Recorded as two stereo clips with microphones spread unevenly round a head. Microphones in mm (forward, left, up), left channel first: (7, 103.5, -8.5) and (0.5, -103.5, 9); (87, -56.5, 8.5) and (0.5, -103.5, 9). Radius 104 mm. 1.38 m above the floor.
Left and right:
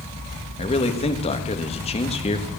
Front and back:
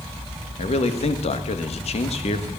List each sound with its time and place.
0.6 s a man speaking: 25° left, 1.4 m